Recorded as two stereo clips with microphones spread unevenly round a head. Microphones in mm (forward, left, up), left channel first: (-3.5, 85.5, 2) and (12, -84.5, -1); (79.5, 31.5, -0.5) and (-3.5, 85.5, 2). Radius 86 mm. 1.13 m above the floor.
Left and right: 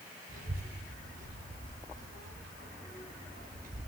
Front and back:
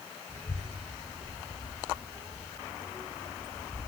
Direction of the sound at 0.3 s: 130° right.